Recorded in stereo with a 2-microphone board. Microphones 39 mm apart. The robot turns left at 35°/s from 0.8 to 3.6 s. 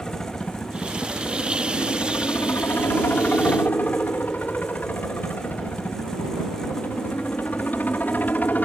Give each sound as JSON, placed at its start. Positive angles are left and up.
{"t": 0.0, "sound": "a helicopter", "azimuth_deg": 150}